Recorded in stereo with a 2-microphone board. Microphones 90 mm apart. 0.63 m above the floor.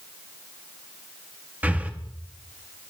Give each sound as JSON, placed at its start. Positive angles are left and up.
{"t": 1.6, "sound": "breathing", "side_deg": -20, "distance_m": 1.2}